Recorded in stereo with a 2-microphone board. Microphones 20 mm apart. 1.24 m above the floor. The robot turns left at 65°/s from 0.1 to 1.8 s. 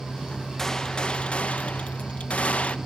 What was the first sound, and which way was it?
A gunshot, 165° left.